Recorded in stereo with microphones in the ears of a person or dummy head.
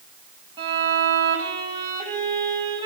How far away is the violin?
About 1.9 m.